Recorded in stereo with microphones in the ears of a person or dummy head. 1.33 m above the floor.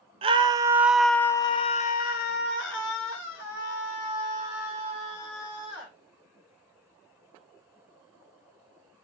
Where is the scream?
30° right (ahead or behind), 0.8 m; by 5.9 s 80° left, 2.5 m.